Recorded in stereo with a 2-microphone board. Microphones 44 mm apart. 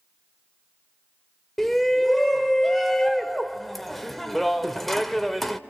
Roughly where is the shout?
Centre.